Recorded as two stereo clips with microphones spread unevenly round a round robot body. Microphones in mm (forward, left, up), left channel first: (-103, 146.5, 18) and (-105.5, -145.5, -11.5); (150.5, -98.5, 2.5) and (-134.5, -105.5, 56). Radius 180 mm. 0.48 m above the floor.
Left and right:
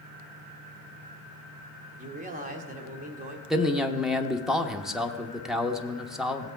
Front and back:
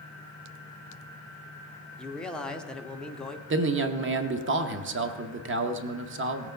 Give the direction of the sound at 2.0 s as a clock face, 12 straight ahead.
2 o'clock.